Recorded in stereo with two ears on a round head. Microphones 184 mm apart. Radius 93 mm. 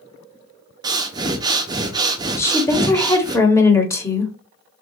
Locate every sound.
0.8 s breathing: 20° right (ahead or behind), 0.5 m
2.4 s a woman speaking: 15° left (ahead or behind), 1.0 m